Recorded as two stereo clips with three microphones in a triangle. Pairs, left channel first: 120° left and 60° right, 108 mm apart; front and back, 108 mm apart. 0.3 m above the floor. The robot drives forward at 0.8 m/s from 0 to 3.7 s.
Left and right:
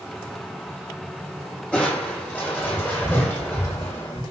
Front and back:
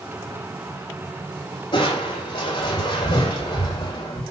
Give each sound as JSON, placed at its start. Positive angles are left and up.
{"t": 1.7, "sound": "crushing", "azimuth_deg": 45, "distance_m": 9.0}